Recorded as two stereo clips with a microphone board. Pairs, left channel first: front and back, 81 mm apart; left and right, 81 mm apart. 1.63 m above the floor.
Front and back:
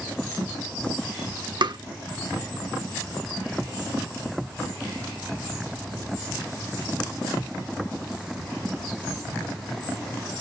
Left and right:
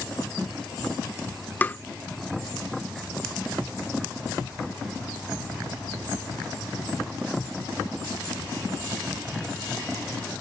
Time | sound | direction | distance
1.6 | tapping | 155° left | ?